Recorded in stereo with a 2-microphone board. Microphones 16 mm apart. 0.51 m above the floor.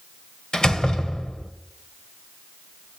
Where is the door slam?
55° left (ahead or behind), 1.6 m.